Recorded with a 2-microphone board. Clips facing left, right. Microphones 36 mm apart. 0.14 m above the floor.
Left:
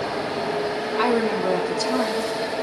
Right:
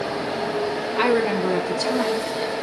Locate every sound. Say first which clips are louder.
0.9 s a woman speaking: right 1 dB; 30° right (ahead or behind), 2.5 m